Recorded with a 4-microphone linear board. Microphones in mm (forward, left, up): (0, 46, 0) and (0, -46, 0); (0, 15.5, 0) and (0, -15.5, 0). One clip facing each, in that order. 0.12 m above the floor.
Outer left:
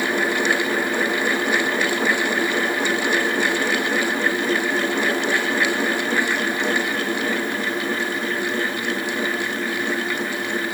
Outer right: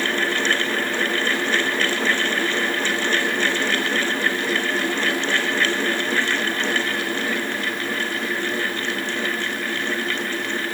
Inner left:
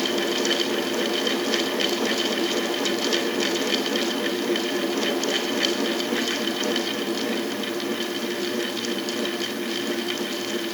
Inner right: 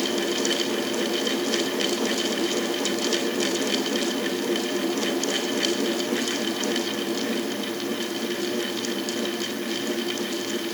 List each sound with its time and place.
Only background noise.